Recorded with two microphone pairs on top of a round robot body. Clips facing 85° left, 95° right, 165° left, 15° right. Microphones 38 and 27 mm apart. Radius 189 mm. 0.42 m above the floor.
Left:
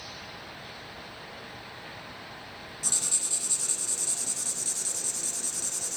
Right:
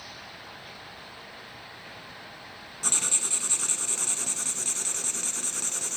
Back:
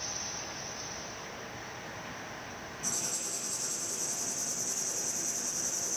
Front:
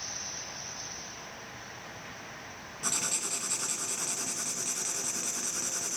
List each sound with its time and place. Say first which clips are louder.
2.8 s writing: right 4 dB, front 4 dB; 50° right, 1.5 m